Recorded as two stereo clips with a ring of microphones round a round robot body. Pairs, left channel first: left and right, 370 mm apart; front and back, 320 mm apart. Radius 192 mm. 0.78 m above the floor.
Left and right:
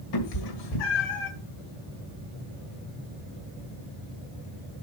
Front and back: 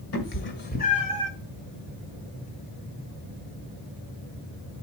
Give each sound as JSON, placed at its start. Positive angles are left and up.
{"t": 0.1, "sound": "a cat meowing", "azimuth_deg": 50, "distance_m": 1.8}